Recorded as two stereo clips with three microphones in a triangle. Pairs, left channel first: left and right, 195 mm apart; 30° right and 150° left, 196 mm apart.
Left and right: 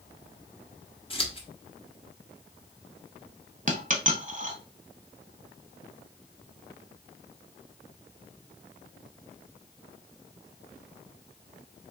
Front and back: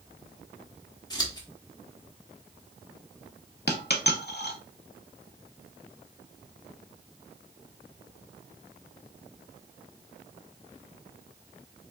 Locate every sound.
1.1 s scissors: 35° left, 0.9 m
3.7 s a dropped coin: 45° right, 0.8 m